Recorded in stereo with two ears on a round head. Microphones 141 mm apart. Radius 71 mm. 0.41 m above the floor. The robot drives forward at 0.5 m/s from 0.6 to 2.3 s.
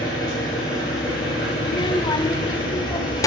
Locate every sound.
0.0 s an engine running: 25° left (ahead or behind), 6 m; by 3.3 s 30° left (ahead or behind), 5 m
1.6 s a child speaking: 35° left (ahead or behind), 0.5 m; by 3.3 s 25° left (ahead or behind), 0.8 m